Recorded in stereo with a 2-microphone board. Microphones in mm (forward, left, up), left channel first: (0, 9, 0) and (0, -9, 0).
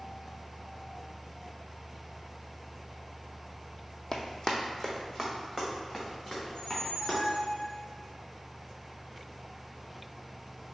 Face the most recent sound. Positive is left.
turn(degrees=65)  # may be behind; listen again after turning